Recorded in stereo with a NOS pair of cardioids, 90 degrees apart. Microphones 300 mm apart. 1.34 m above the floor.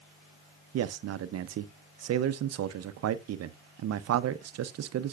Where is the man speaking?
60° right, 0.7 m.